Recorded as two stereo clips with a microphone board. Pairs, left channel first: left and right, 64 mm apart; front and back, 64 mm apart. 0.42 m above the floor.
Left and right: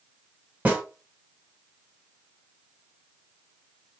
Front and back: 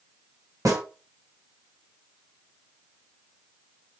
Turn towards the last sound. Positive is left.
turn(degrees=-155)